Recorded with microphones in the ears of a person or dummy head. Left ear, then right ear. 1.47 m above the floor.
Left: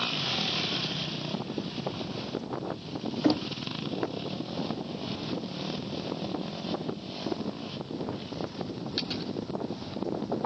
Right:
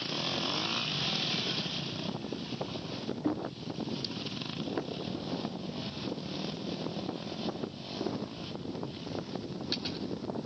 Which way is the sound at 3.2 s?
50° left (ahead or behind).